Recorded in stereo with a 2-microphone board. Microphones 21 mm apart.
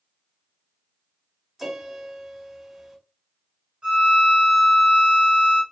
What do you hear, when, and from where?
1.6 s a piano: 15° right (ahead or behind), 1.2 m
3.8 s a violin: 45° right (ahead or behind), 1.9 m